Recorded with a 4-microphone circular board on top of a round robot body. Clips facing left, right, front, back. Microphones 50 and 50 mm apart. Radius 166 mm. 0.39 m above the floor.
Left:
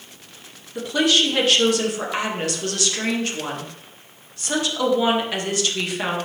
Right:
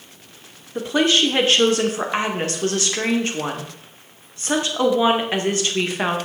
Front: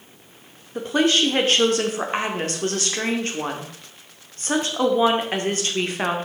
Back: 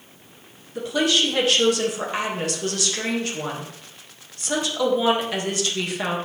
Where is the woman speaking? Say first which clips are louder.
Right 1 dB, front 2 dB; 40° right, 1.9 m.